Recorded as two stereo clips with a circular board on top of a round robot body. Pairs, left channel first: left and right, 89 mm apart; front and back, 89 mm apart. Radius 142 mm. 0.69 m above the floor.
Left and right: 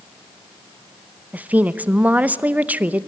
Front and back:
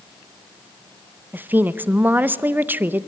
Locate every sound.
1.3 s a woman speaking: 140° right, 0.9 m